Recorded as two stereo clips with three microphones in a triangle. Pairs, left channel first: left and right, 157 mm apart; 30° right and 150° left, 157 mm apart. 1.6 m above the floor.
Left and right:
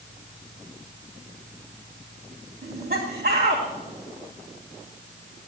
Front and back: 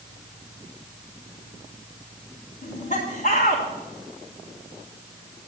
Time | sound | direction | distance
2.6 | laughter | 70° right | 4 m